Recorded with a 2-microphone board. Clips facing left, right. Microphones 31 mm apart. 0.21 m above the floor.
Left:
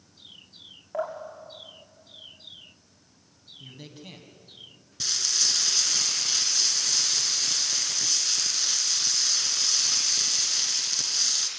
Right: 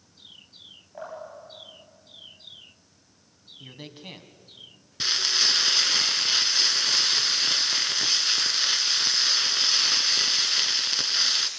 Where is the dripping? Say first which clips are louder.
Left 6 dB; 85° left, 6 m.